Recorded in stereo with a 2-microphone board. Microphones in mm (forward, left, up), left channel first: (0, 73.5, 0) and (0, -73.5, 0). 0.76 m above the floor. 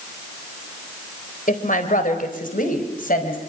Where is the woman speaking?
65° left (ahead or behind), 3.5 m; by 3.4 s 75° left (ahead or behind), 5 m.